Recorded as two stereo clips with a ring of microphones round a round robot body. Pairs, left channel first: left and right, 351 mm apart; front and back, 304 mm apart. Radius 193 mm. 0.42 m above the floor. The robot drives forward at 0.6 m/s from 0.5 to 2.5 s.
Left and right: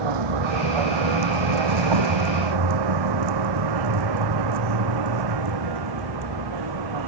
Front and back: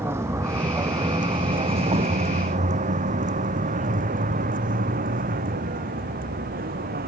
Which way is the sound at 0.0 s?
95° right.